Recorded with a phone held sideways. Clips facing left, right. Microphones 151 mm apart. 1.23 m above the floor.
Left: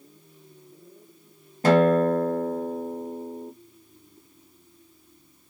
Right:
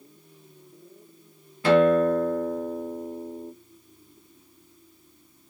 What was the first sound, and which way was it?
A guitar, 45° left (ahead or behind).